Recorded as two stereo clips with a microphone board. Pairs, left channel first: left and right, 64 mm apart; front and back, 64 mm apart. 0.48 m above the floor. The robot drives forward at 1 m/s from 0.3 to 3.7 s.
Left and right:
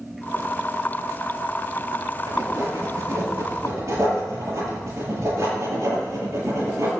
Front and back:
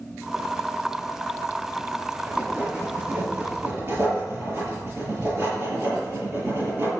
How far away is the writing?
About 6.5 m.